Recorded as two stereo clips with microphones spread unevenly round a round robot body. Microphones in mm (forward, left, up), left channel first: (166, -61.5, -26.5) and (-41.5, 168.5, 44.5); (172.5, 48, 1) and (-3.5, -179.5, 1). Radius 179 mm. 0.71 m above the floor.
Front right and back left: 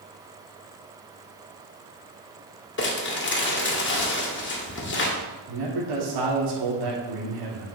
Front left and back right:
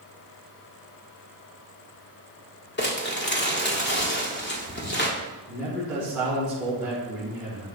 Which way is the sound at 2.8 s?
Straight ahead.